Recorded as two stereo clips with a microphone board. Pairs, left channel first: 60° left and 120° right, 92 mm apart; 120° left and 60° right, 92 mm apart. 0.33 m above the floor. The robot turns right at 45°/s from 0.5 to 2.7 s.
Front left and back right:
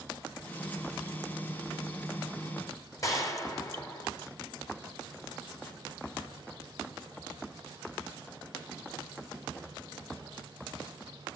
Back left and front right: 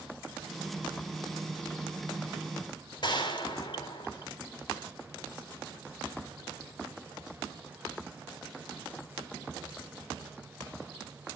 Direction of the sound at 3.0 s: 105° left.